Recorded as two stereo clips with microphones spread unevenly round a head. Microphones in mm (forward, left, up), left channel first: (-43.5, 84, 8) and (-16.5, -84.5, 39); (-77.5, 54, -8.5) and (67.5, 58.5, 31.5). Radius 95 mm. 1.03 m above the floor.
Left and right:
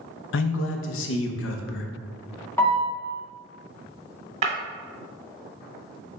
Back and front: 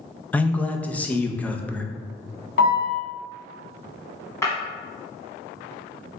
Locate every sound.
0.3 s a man speaking: 100° left, 0.6 m
2.6 s a piano: 175° left, 1.5 m
4.4 s breaking glass: 90° right, 1.1 m